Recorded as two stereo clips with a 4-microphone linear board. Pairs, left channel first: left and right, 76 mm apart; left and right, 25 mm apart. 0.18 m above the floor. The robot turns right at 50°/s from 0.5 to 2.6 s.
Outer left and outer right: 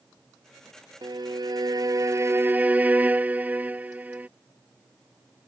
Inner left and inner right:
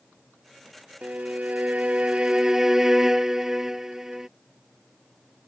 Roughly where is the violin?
Right.